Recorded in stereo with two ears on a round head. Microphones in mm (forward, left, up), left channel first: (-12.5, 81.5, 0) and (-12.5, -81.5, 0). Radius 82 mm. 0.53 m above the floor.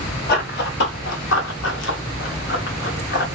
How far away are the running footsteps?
About 1.3 m.